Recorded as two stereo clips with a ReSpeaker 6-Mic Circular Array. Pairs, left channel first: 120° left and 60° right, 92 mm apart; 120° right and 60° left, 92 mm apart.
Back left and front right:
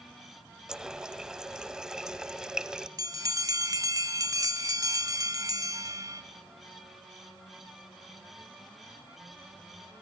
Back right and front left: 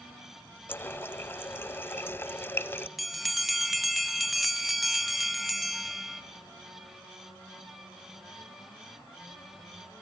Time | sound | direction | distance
0.7 | a running tap | 135° right | 0.8 m
3.0 | a bell | 30° right | 1.1 m